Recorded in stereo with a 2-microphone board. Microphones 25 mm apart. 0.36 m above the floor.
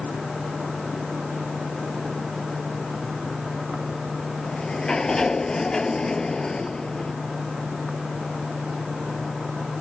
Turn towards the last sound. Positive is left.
turn(degrees=25)  # may be behind; listen again after turning